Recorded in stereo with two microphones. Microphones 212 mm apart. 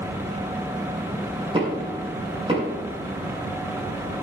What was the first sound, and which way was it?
Knocking, 25° right (ahead or behind).